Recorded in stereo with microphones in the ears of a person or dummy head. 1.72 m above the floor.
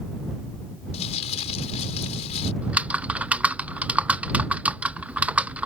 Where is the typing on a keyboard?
5° right (ahead or behind).